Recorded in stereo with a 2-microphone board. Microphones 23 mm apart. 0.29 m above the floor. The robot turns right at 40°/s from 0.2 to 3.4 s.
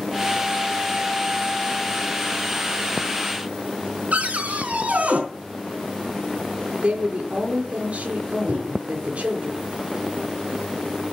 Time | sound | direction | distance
4.1 | a cupboard door | 65° right (ahead or behind) | 4 m
6.8 | a woman speaking | 55° right (ahead or behind) | 6 m
8.5 | a microwave | 70° right (ahead or behind) | 8 m